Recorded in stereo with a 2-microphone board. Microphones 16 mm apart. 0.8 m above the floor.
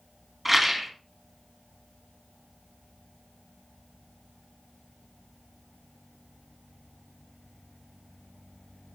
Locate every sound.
0.5 s a rattle: 10° right (ahead or behind), 1.4 m